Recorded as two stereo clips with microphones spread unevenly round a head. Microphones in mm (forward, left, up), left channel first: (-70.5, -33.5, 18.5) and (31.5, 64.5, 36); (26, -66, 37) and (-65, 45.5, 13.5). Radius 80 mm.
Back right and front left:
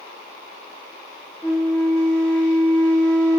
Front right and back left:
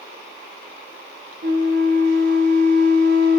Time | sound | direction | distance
1.4 | a flute | 145° left | 2 m